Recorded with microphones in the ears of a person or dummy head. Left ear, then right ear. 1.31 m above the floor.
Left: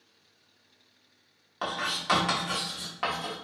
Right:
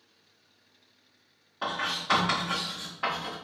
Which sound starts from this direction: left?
Writing, at 1.6 s.